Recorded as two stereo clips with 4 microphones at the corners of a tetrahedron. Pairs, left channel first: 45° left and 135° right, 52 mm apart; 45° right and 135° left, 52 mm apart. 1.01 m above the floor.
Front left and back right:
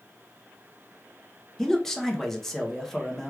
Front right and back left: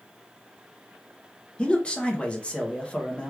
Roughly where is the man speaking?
Ahead right.